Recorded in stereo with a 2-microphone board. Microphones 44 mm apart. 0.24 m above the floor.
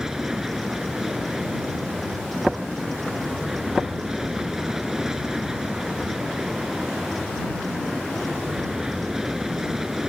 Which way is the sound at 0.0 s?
10° right (ahead or behind).